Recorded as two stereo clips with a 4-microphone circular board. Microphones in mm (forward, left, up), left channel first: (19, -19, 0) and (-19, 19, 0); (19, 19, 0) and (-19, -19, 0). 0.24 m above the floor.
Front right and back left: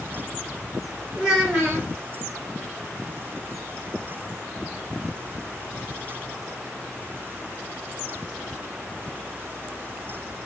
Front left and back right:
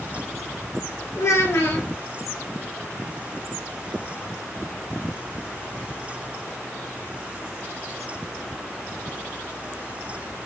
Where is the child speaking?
40° left, 1.8 m.